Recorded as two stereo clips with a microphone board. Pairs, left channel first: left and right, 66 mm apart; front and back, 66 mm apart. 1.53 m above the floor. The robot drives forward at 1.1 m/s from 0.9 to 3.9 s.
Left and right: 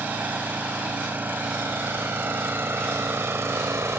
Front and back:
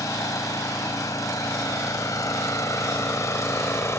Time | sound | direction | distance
0.0 | an engine running | 30° right | ?